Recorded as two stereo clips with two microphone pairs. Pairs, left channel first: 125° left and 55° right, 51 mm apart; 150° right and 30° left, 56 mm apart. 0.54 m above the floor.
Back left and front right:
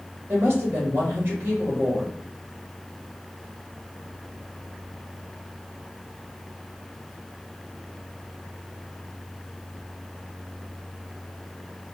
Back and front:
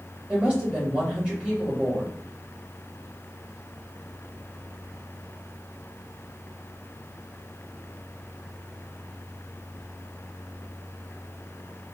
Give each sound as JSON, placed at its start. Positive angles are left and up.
{"t": 0.3, "sound": "a woman speaking", "azimuth_deg": -30, "distance_m": 2.0}